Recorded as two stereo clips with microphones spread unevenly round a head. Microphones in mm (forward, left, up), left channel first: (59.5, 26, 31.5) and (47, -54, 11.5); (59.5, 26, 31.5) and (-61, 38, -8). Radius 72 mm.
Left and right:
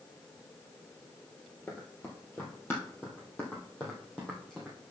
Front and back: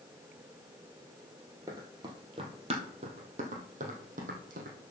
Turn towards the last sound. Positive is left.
turn(degrees=160)